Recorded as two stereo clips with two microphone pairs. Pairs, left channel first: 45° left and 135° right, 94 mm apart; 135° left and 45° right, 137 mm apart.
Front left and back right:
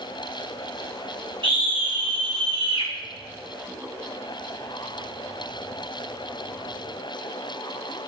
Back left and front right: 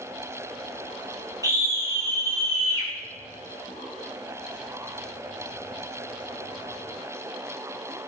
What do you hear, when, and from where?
1.4 s a scream: 110° right, 6 m